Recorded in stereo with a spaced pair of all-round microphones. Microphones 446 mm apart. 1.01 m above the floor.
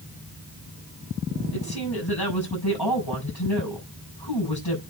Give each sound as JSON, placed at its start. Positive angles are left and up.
{"t": 1.5, "sound": "a woman speaking", "side_deg": 60, "distance_m": 5.5}